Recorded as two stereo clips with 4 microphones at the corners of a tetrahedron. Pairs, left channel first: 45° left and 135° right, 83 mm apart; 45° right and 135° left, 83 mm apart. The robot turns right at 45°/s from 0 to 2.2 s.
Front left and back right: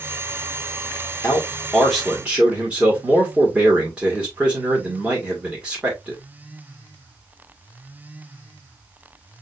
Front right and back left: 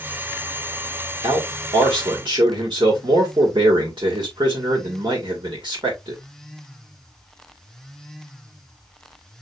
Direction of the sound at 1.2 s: 105° left.